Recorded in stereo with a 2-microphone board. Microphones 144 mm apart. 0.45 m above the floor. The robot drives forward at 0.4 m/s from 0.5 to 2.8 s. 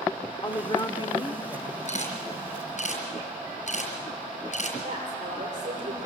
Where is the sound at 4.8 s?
60° right (ahead or behind), 9 m.